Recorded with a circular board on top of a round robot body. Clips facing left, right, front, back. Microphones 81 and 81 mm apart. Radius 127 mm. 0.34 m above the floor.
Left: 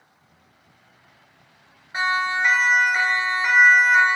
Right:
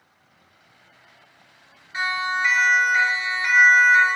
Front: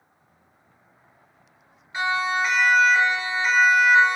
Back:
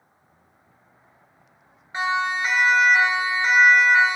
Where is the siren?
135° left, 3.5 m; by 4.2 s 155° left, 3.5 m.